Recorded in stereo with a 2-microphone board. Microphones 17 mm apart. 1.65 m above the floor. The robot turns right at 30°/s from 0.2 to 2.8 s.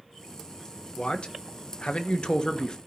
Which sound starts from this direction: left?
A man speaking, at 1.0 s.